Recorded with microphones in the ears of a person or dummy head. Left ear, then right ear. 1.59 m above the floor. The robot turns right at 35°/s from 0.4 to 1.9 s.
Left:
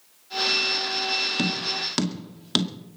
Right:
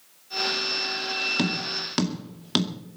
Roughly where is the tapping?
Centre.